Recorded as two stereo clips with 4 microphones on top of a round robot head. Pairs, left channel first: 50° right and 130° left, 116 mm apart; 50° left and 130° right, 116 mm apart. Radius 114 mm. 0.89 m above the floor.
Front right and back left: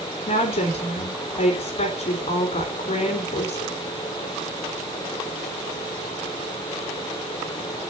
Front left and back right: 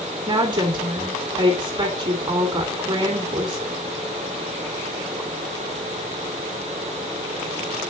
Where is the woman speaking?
80° right, 2.5 m.